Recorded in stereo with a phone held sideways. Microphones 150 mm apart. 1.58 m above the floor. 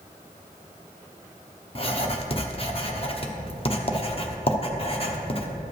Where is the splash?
I don't hear a splash.